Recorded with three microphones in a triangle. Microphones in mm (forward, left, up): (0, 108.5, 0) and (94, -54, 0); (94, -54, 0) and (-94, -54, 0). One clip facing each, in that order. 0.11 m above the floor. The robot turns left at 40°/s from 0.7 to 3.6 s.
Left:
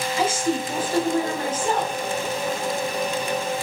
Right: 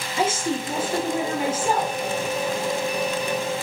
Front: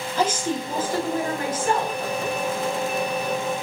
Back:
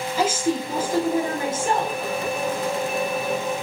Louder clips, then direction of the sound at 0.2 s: Even, back 1 dB; 105° right.